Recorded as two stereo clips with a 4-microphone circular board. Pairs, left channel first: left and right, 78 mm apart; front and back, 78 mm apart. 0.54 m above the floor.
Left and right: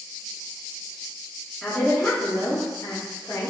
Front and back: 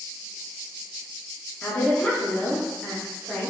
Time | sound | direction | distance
1.6 | a woman speaking | 25° left | 1.1 m